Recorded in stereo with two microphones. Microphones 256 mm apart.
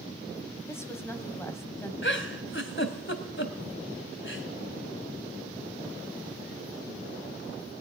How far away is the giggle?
About 1.9 m.